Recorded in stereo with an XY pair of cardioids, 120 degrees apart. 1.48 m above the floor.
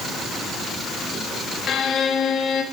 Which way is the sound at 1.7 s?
45° left.